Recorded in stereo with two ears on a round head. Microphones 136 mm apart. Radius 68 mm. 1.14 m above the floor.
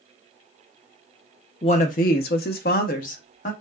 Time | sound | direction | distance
1.6 | a woman speaking | 35° left (ahead or behind) | 0.5 m